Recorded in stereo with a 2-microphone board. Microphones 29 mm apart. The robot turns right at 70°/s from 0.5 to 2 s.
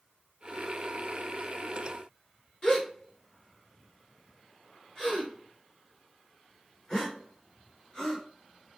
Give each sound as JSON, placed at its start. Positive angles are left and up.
{"t": 2.6, "sound": "a gasp", "side_deg": 20, "distance_m": 1.6}